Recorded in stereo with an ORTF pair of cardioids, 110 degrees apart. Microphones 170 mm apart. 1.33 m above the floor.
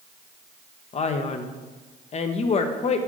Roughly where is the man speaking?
Ahead left.